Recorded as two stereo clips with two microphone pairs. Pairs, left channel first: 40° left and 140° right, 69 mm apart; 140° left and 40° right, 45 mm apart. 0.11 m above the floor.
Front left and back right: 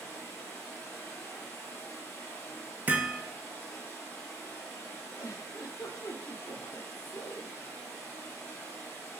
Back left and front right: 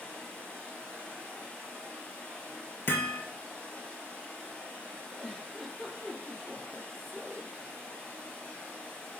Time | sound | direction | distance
0.0 | running water | 90° left | 1.5 m
2.9 | hammering | 160° left | 0.7 m
5.2 | a giggle | 55° left | 1.0 m